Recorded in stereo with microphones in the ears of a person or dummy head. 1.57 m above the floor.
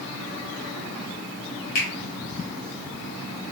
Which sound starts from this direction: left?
A finger snap, at 1.8 s.